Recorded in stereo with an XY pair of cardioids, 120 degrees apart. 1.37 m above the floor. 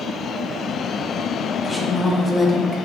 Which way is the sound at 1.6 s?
10° left.